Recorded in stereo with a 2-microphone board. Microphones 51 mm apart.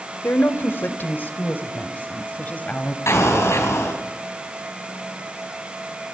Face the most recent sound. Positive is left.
turn(degrees=70)  # may be behind; listen again after turning